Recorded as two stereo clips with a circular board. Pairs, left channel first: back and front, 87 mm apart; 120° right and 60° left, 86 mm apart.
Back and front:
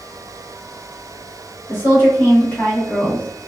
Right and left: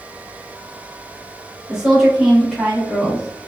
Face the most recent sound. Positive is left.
turn(degrees=-105)